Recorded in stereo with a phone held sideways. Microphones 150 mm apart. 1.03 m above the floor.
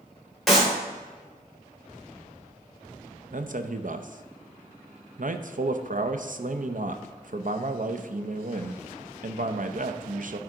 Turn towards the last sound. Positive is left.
turn(degrees=-65)  # may be behind; listen again after turning